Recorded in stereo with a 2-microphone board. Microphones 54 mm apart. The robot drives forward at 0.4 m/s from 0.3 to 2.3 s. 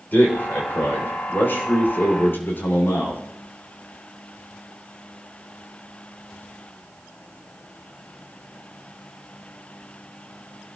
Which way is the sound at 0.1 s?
35° left (ahead or behind).